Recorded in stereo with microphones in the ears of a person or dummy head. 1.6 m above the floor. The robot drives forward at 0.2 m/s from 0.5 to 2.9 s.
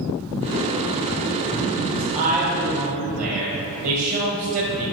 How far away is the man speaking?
About 1.3 m.